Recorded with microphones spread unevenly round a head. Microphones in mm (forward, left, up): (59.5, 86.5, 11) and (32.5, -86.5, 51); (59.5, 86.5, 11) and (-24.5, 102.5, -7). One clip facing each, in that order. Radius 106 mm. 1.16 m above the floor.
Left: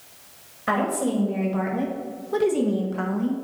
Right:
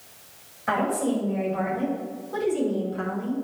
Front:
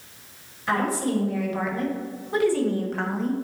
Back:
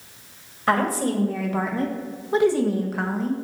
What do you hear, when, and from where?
0.7 s a woman speaking: 140° left, 2.5 m; by 3.4 s 80° left, 1.5 m